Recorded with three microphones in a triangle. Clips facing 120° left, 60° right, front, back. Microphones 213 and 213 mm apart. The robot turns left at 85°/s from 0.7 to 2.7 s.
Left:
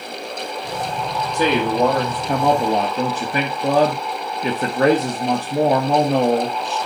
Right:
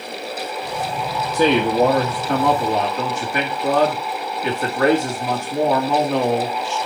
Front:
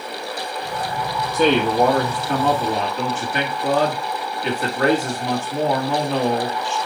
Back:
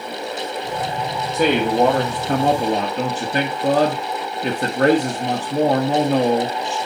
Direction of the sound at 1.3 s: 90° right.